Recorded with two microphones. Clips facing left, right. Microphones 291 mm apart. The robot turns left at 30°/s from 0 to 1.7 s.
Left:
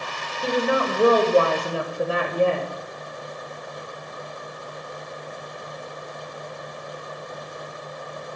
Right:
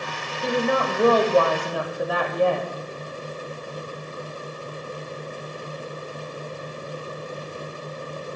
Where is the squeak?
I don't hear a squeak.